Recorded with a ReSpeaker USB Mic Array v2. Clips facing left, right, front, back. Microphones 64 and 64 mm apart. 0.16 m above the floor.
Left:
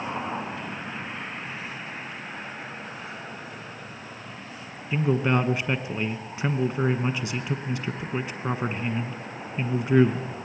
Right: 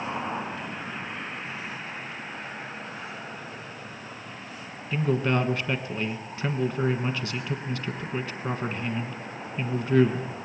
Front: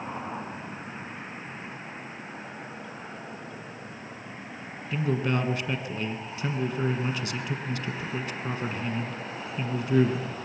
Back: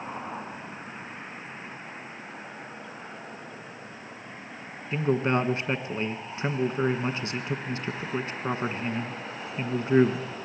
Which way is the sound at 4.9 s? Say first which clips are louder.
Left 2 dB, back 3 dB; 150° left.